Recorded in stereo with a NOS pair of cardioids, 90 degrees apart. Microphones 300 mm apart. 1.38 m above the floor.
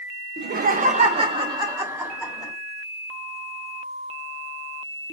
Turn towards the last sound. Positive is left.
turn(degrees=-5)